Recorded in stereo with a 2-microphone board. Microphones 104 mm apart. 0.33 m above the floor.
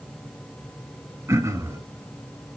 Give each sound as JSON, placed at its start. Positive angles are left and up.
{"t": 1.3, "sound": "throat clearing", "side_deg": -30, "distance_m": 1.0}